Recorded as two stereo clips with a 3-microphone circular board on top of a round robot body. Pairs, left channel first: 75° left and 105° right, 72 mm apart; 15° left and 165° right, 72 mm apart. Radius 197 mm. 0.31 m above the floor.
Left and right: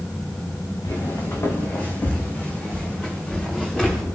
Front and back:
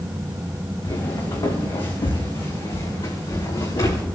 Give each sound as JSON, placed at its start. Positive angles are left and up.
{"t": 0.8, "sound": "footsteps", "azimuth_deg": 35, "distance_m": 2.5}